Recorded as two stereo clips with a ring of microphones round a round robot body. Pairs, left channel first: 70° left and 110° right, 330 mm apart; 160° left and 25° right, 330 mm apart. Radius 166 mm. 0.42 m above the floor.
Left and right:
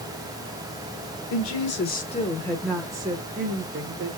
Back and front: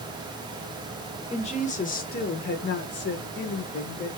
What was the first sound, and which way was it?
A woman speaking, 90° left.